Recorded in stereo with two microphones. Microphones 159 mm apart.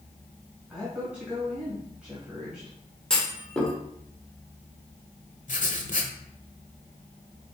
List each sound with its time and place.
0.7 s a woman speaking: 10° right (ahead or behind), 2.0 m
3.1 s a clunk: 5° left (ahead or behind), 1.2 m
5.5 s writing: 60° left (ahead or behind), 0.8 m